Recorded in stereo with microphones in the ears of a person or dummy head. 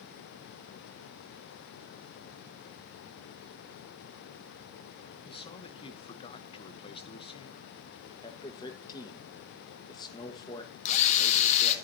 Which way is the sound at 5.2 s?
35° left (ahead or behind).